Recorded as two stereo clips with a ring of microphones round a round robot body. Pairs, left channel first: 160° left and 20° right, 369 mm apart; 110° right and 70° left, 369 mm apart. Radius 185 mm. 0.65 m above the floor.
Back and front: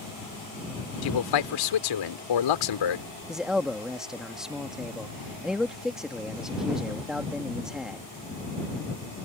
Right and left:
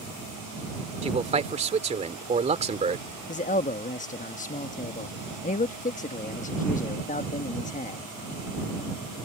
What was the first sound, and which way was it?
A man speaking, 140° left.